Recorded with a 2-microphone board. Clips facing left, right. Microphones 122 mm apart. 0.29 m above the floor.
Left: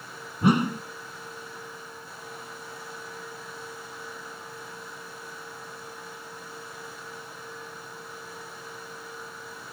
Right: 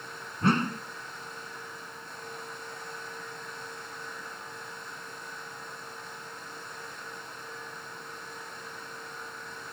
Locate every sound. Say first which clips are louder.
0.4 s a whoosh: left 4 dB; 10° left (ahead or behind)